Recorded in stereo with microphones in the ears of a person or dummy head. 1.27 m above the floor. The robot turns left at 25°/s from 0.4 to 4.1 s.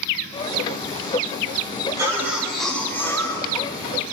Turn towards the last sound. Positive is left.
turn(degrees=140)